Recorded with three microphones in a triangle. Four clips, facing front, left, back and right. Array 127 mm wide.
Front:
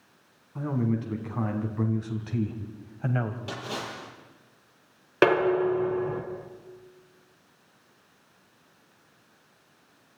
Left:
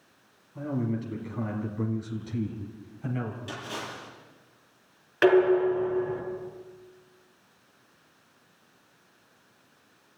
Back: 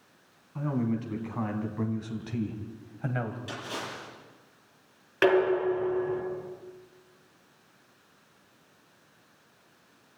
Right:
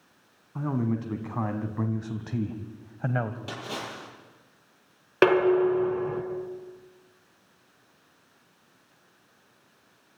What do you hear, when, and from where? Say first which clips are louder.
0.6 s a man speaking: right 2 dB, front 1 dB; 95° right, 3.5 m; by 3.4 s 85° right, 2 m
3.5 s a splash: right 1 dB, front 2 dB; 60° right, 7.5 m
5.2 s dishes clattering: even, front 2 dB; 55° right, 3 m